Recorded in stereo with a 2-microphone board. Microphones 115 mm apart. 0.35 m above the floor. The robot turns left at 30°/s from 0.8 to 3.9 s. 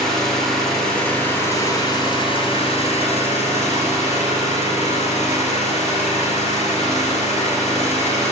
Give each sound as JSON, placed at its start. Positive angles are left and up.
{"t": 0.0, "sound": "an engine running", "azimuth_deg": 180, "distance_m": 2.5}